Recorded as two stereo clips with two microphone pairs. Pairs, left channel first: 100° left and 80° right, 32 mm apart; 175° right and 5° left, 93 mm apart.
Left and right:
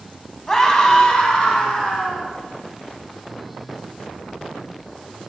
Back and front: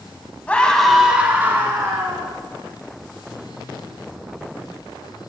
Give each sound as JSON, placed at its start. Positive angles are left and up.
{"t": 0.5, "sound": "a scream", "azimuth_deg": 140, "distance_m": 1.6}